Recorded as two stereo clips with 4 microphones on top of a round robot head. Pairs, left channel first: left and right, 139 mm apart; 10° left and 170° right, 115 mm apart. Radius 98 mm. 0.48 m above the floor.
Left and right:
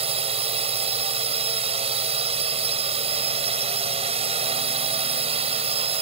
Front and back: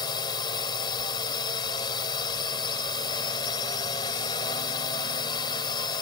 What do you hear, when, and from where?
0.0 s a drone: 50° right